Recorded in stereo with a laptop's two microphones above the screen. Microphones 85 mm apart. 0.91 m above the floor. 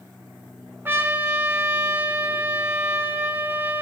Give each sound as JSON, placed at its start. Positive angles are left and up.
{"t": 0.8, "sound": "a trumpet", "side_deg": -25, "distance_m": 0.7}